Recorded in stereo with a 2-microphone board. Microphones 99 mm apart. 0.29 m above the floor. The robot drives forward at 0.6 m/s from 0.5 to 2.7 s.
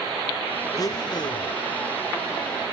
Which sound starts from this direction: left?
A blender, at 0.7 s.